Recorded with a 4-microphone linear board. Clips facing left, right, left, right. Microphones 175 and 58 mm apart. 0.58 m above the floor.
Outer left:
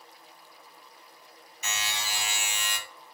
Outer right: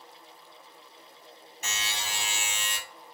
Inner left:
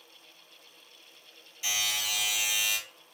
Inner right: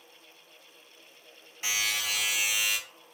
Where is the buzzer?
55° right (ahead or behind), 2 m.